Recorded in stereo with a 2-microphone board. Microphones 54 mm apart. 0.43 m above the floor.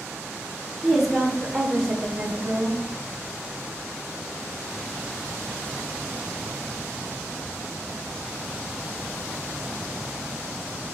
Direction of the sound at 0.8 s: Centre (ahead or behind).